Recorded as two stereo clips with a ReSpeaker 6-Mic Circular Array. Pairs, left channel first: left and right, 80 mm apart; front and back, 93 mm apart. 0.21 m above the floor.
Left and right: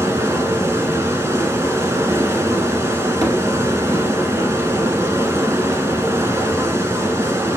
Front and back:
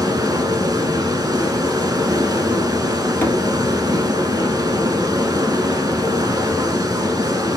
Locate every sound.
0.0 s running water: 140° right, 1.2 m
3.2 s a thud: 65° right, 1.6 m